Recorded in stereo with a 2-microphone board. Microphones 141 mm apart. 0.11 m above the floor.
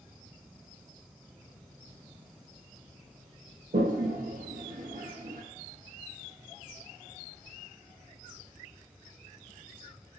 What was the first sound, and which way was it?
A toilet flushing, 75° right (ahead or behind).